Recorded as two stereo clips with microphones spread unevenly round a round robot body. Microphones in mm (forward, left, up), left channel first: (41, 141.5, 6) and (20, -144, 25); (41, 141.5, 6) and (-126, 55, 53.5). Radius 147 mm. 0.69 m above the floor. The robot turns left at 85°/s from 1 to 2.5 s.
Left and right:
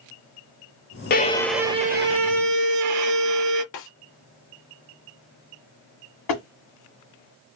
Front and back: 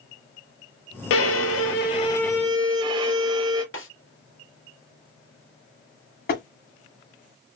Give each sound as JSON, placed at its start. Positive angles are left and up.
{"t": 1.1, "sound": "a violin", "azimuth_deg": 30, "distance_m": 0.6}
{"t": 3.7, "sound": "a snare drum", "azimuth_deg": 40, "distance_m": 2.0}
{"t": 6.3, "sound": "tapping", "azimuth_deg": 70, "distance_m": 1.9}